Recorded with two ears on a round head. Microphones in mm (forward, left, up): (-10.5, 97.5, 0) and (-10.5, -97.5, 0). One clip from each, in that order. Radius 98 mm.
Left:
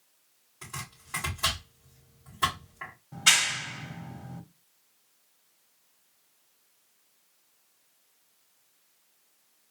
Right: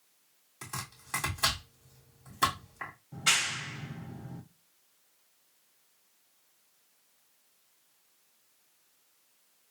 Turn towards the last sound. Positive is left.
turn(degrees=20)  # may be behind; listen again after turning